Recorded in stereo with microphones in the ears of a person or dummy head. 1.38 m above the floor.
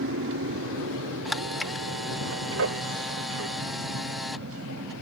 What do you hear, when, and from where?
0.0 s an aircraft: 70° right (ahead or behind); by 5.0 s 80° right
1.2 s a camera shutter: centre (ahead or behind)